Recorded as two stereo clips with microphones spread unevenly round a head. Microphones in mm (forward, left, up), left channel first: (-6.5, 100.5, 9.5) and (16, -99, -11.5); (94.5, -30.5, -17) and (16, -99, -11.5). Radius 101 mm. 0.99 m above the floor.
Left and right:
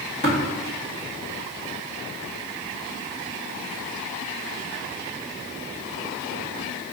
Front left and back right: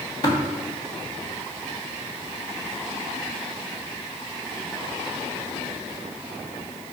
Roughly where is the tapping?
Ahead left.